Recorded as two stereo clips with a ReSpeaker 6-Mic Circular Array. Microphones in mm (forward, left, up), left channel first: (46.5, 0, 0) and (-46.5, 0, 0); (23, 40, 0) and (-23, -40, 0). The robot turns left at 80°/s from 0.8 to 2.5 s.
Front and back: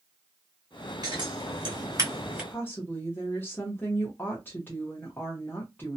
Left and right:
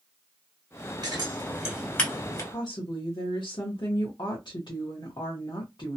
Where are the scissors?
145° right, 2.0 m; by 2.4 s 105° left, 2.0 m.